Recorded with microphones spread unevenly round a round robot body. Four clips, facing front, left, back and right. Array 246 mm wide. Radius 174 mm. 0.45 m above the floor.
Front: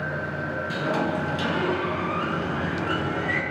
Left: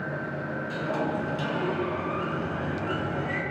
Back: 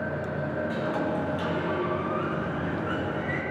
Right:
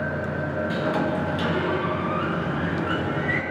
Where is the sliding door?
70° right, 3.5 m.